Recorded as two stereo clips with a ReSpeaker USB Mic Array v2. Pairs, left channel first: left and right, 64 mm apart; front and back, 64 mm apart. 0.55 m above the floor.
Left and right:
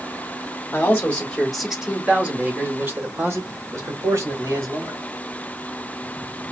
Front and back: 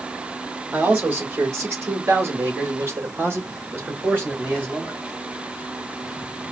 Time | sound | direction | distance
0.7 | a man speaking | 130° left | 1.6 m